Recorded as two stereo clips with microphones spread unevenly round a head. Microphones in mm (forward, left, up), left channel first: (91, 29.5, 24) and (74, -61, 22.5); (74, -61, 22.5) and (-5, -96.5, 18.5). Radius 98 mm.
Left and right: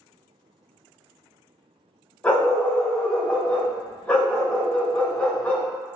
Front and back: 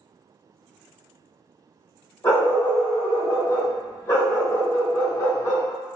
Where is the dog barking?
10° left, 1.6 m.